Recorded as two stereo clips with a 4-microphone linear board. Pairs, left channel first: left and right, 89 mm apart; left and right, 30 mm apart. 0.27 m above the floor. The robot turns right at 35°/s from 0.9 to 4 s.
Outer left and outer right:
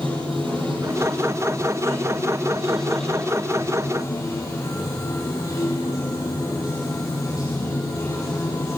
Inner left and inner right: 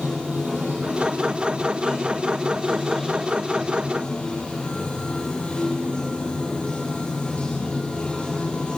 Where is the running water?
70° right, 6.5 m; by 8.8 s 40° left, 6.5 m.